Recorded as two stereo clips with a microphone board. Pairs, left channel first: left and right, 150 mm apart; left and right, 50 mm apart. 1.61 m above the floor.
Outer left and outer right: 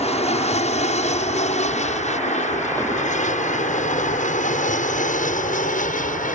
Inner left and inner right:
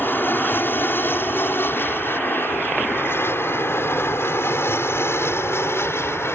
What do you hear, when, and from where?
0.0 s an aircraft: 45° left (ahead or behind); by 6.4 s 60° left (ahead or behind)